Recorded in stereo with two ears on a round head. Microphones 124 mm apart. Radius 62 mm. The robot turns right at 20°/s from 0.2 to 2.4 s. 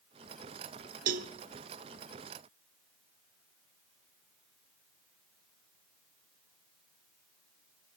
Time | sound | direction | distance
1.1 | a cowbell | 65° right (ahead or behind) | 0.5 m